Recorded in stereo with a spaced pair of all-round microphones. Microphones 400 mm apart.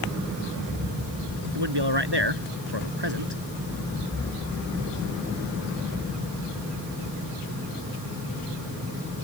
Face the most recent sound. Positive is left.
turn(degrees=-70)  # may be behind; listen again after turning